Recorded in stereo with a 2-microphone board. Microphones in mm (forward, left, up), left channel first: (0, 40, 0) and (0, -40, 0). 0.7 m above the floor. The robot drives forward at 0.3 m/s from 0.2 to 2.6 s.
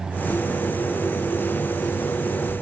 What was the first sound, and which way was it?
Only background noise.